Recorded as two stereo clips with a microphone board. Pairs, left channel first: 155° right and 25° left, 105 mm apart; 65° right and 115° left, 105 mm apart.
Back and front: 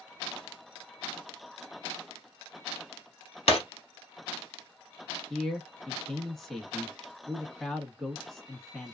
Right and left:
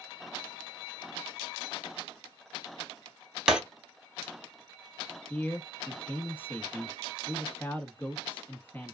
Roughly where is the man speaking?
Right.